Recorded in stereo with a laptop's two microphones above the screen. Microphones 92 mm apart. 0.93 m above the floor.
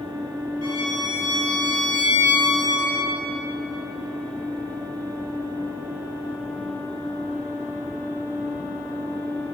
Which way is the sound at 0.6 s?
65° right (ahead or behind).